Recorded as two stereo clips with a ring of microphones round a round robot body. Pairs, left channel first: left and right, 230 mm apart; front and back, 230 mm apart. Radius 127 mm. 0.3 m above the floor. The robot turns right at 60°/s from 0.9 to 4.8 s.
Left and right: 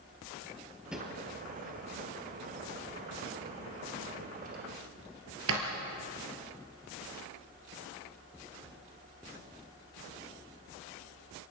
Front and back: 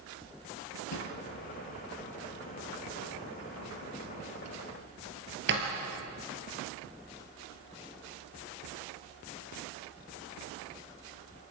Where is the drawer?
5° right, 3 m; by 5.7 s 130° right, 3 m.